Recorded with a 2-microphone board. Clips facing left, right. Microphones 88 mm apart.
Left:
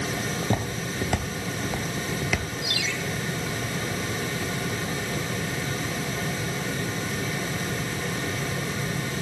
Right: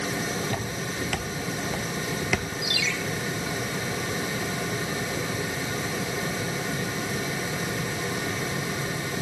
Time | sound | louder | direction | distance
0.4 | footsteps | left 2 dB | 35° left (ahead or behind) | 1.1 m
2.6 | a ringtone | right 1 dB | 40° left (ahead or behind) | 1.5 m